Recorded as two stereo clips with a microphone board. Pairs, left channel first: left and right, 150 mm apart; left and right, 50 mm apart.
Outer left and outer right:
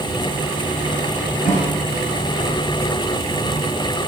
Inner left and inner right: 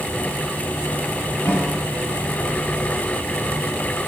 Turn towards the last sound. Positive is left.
turn(degrees=75)  # may be behind; listen again after turning